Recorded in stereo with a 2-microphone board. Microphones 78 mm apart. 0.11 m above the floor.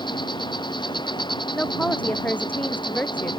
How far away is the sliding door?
No sliding door in this recording.